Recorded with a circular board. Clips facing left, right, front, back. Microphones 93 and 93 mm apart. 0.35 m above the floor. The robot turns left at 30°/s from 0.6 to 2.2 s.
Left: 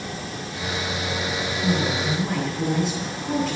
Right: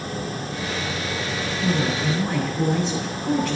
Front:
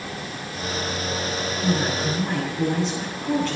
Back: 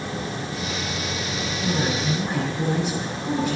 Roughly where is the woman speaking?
Right.